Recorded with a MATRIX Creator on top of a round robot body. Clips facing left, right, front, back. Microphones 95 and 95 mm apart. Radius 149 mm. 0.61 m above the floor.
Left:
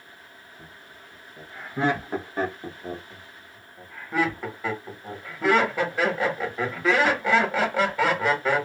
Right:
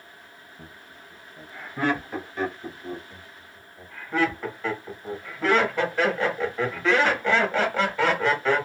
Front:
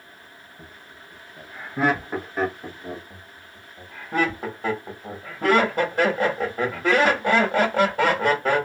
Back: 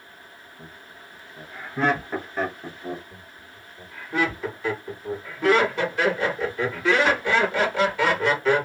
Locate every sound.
0.6 s laughter: 65° right, 1.1 m; by 3.0 s 90° left, 1.4 m
3.1 s laughter: 10° left, 1.5 m